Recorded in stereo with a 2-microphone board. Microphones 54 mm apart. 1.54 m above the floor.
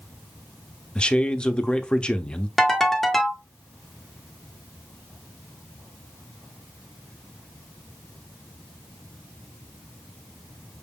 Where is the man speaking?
20° left (ahead or behind), 0.6 m.